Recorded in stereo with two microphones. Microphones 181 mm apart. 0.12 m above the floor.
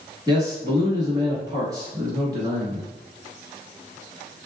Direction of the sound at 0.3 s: 20° right (ahead or behind).